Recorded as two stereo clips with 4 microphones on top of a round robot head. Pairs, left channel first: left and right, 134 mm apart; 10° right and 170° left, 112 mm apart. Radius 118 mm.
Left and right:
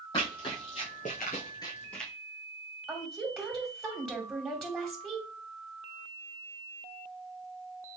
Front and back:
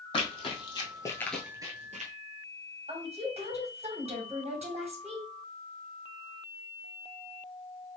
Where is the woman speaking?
170° right, 1.8 m.